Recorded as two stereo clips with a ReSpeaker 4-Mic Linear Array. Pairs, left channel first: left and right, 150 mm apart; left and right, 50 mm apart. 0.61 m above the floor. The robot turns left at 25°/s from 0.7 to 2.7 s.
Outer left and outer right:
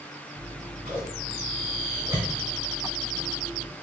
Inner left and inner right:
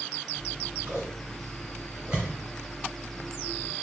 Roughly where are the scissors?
Right.